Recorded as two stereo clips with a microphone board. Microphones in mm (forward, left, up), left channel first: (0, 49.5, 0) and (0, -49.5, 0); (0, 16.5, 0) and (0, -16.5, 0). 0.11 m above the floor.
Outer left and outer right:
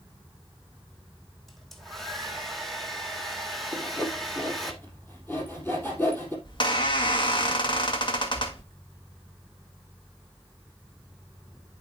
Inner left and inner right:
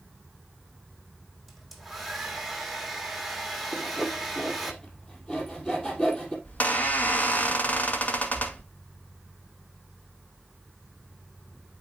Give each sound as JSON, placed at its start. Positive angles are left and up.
{"t": 1.5, "sound": "a hair dryer", "side_deg": 0, "distance_m": 1.4}
{"t": 3.7, "sound": "sawing", "side_deg": 20, "distance_m": 2.5}
{"t": 6.5, "sound": "a squeak", "side_deg": 50, "distance_m": 1.9}